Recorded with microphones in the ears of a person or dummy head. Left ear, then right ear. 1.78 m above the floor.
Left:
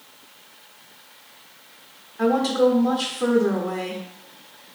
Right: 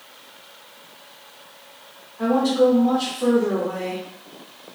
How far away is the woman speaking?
About 0.7 m.